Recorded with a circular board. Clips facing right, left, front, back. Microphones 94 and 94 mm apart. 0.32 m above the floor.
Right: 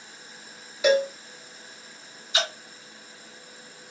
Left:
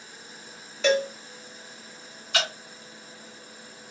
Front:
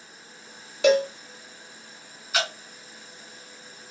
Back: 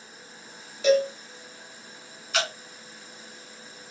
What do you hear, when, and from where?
0.8 s a cowbell: 10° right, 0.6 m
2.3 s dripping: 80° left, 2.5 m